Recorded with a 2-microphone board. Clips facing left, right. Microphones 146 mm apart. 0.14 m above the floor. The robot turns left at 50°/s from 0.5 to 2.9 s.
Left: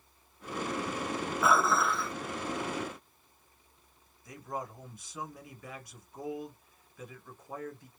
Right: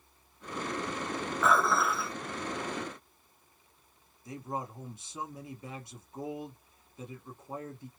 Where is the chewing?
I don't hear chewing.